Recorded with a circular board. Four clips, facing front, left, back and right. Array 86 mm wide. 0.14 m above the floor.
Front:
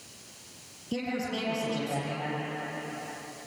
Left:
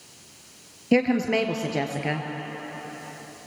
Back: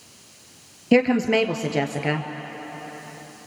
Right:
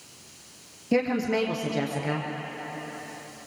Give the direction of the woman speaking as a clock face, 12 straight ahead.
7 o'clock.